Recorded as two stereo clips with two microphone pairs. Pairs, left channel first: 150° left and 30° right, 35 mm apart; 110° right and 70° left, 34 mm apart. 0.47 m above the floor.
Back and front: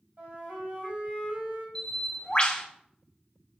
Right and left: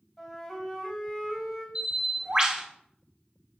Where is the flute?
20° right, 3 m.